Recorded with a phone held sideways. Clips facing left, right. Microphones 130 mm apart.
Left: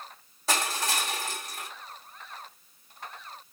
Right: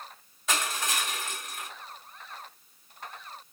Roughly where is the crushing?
Left.